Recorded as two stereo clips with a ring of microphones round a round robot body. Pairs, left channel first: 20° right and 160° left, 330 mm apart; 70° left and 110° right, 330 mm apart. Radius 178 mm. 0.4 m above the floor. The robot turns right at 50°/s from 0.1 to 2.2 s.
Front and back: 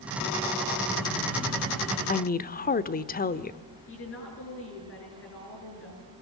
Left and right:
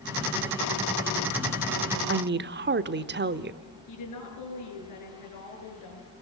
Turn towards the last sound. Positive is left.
turn(degrees=30)